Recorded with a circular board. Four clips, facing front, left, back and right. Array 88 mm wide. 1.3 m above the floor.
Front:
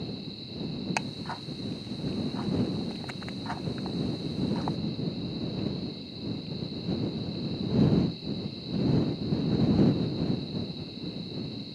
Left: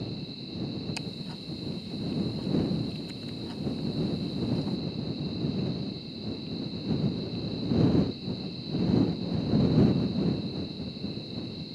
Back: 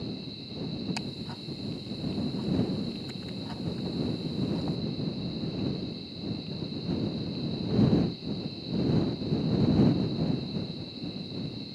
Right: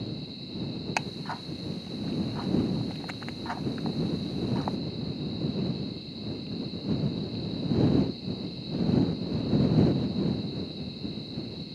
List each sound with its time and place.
1.0 s ticking: 55° right